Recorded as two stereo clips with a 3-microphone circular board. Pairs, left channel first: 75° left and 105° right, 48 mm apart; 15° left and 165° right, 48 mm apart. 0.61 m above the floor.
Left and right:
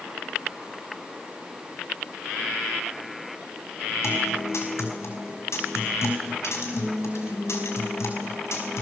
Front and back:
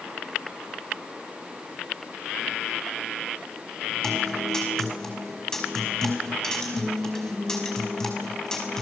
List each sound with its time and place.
4.0 s a guitar: 95° left, 5 m